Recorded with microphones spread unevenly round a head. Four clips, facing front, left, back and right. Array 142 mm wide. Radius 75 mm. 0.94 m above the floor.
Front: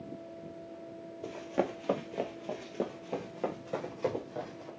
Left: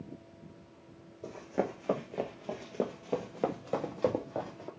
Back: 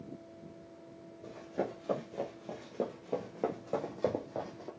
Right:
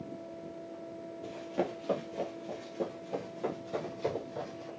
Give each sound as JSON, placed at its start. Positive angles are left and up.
{"t": 1.2, "sound": "running footsteps", "azimuth_deg": 20, "distance_m": 1.2}